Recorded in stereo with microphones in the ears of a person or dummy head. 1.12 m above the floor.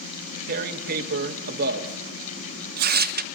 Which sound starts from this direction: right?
Tearing paper, at 0.5 s.